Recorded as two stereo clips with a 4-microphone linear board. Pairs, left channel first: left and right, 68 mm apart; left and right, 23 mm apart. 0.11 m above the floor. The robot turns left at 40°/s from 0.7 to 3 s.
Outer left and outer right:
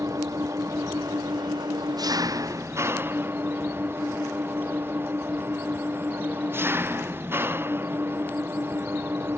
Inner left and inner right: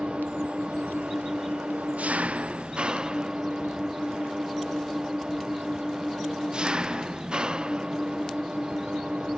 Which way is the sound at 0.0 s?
50° right.